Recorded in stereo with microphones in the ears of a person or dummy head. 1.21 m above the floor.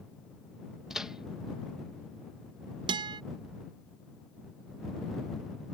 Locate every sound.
0.9 s a microwave: 5° right (ahead or behind)
2.9 s a guitar: 25° right (ahead or behind)